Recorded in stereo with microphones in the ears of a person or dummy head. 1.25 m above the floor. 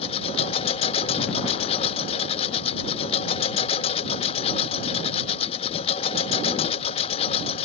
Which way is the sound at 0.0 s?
35° left (ahead or behind).